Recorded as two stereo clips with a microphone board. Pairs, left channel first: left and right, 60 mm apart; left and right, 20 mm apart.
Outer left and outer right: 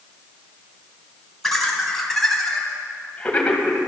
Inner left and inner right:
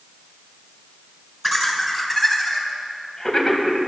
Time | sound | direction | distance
1.4 | laughter | 5° left (ahead or behind) | 3.5 m